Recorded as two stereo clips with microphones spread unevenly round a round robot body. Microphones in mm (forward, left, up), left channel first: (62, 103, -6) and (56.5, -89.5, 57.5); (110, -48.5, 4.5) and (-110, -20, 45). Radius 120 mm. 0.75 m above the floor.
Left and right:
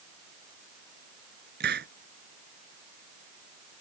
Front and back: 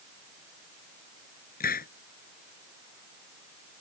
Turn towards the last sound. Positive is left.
turn(degrees=-60)